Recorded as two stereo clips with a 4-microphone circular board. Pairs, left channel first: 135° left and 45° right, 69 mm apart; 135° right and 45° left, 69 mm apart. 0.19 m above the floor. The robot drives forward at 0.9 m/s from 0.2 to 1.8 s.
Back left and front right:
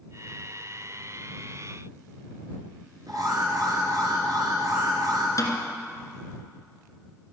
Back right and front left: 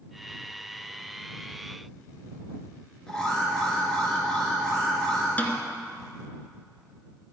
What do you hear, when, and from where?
3.1 s an alarm: 55° right, 3.5 m
5.4 s a snare drum: 160° left, 1.9 m